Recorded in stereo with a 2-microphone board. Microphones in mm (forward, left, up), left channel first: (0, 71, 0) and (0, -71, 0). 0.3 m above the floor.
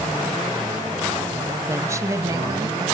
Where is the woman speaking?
20° right (ahead or behind), 1.5 m; by 2.9 s 25° right (ahead or behind), 2.5 m.